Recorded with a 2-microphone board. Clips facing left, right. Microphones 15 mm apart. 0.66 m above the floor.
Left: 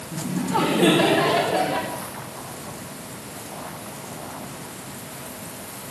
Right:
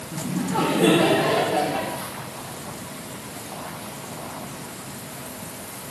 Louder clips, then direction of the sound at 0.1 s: Left 1 dB; 35° left (ahead or behind).